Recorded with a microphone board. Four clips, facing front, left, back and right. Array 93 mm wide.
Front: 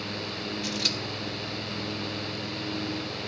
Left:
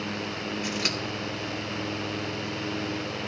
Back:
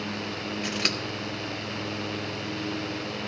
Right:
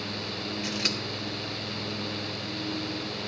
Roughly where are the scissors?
Behind.